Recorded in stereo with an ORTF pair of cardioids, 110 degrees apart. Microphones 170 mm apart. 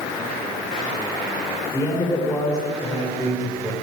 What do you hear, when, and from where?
1.7 s a man speaking: 20° left, 5.5 m